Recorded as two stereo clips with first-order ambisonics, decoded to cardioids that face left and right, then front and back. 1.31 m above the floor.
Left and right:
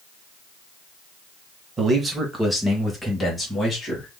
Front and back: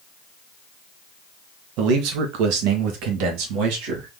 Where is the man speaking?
160° right, 1.4 m; by 4.1 s 170° left, 2.5 m.